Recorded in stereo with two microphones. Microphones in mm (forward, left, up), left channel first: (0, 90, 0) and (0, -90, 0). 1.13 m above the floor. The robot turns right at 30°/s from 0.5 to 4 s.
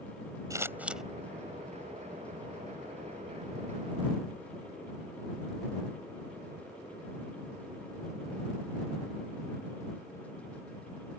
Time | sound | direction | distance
0.5 | scissors | 20° right (ahead or behind) | ?